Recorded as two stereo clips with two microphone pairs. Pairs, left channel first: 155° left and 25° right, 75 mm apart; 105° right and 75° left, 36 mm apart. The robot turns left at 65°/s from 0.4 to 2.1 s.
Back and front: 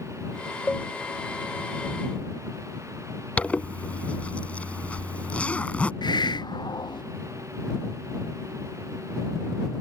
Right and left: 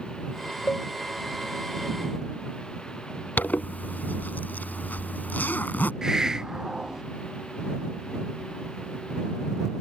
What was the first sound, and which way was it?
A cowbell, 125° right.